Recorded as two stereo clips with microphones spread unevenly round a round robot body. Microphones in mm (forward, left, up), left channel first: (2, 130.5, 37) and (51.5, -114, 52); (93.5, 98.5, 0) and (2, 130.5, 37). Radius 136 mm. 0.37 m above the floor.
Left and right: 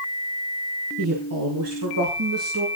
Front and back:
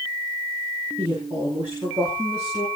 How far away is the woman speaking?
About 4.5 m.